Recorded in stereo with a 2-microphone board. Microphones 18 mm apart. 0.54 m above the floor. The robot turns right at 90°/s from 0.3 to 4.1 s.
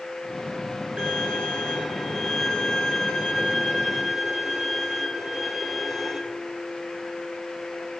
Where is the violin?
105° right, 4.5 m; by 6.2 s straight behind, 4.5 m.